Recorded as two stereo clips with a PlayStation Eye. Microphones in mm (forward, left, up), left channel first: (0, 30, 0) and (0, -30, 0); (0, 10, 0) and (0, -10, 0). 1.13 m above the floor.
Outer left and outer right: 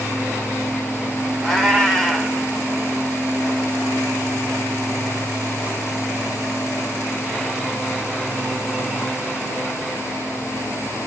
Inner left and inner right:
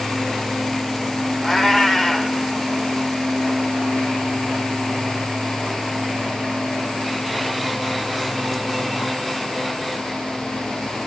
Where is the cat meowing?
5° left (ahead or behind), 2 m.